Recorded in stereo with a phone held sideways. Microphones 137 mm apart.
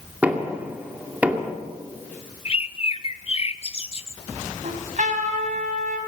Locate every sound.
0.2 s knocking: 10° right (ahead or behind), 2.5 m
2.5 s a bird: 45° left (ahead or behind), 0.7 m
4.6 s a trumpet: 65° right (ahead or behind), 3.5 m